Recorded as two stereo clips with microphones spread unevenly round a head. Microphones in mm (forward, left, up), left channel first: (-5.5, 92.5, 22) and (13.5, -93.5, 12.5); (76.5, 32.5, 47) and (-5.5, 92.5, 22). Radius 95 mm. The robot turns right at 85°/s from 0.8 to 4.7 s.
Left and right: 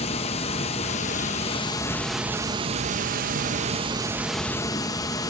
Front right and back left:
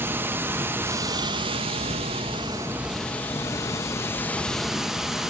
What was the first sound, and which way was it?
Running water, 70° left.